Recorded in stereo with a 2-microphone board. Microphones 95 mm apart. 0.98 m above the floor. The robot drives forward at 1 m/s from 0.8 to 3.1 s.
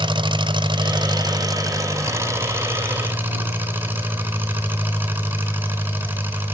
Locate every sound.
0.0 s an engine running: 60° right (ahead or behind), 1.3 m; by 6.5 s 20° right (ahead or behind), 3 m